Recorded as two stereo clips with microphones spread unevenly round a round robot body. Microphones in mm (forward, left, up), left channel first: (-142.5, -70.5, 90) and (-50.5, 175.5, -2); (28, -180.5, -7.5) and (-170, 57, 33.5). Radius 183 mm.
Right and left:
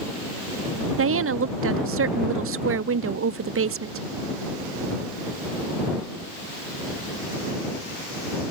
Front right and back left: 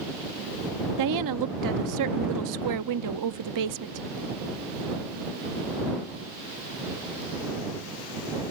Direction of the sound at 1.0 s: 90° left.